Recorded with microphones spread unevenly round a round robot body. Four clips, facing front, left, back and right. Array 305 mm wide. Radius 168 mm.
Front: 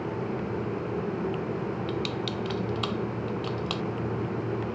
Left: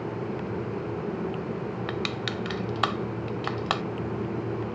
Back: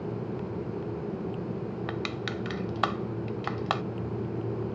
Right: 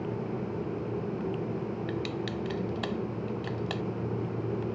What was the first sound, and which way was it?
Crushing, 125° left.